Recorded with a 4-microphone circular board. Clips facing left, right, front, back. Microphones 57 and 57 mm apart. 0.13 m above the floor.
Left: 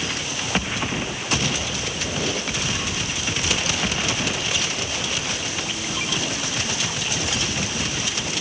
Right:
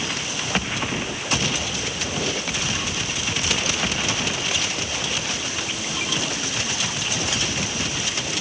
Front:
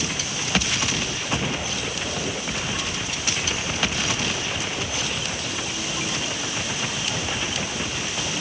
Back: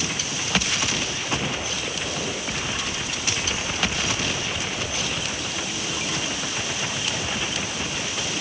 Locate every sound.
Only background noise.